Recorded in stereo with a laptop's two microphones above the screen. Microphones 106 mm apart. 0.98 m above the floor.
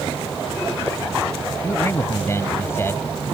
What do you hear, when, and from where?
1.6 s a man speaking: 25° left (ahead or behind); by 3.1 s 20° left (ahead or behind)